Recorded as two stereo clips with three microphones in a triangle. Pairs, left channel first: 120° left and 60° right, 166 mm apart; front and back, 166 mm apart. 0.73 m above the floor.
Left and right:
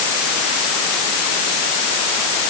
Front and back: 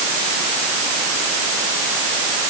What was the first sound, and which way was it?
Only background noise.